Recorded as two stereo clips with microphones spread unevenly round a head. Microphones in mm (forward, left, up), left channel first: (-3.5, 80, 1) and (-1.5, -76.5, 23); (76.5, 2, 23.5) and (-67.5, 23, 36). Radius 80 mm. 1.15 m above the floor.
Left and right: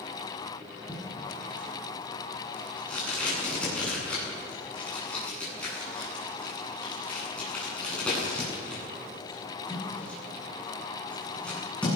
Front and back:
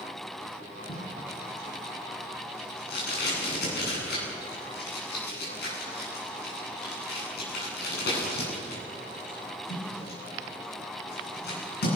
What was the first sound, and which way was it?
Tape being pulled, 5° left.